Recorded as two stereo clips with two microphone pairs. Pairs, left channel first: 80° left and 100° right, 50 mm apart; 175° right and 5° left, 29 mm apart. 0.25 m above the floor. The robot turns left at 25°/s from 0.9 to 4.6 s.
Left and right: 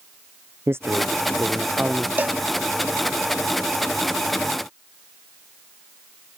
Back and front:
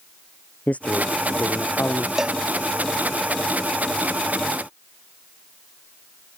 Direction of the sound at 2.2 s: 60° right.